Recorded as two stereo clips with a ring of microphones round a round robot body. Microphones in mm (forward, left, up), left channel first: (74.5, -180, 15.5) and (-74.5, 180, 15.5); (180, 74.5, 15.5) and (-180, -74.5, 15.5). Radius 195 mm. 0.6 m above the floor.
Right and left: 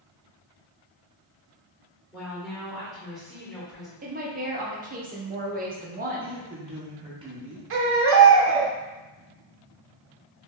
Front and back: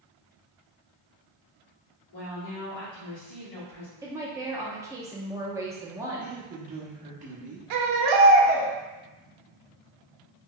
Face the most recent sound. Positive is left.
turn(degrees=170)